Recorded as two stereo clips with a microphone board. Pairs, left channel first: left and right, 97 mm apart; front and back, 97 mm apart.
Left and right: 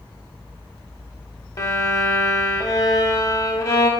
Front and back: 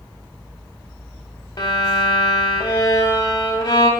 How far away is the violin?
About 0.6 m.